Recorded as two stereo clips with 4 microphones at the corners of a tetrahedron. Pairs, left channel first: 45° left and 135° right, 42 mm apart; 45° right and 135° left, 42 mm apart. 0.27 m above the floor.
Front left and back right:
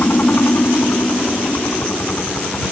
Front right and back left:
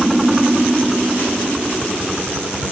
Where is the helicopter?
55° left.